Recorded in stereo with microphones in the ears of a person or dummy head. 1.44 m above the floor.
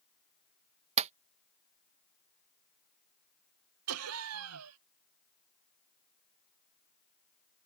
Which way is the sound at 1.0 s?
35° right (ahead or behind).